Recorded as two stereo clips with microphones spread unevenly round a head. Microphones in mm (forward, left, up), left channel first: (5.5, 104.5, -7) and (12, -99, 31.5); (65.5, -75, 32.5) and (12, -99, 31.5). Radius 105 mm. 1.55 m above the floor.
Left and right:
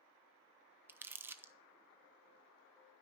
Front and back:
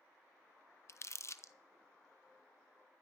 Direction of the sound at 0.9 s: 15° right.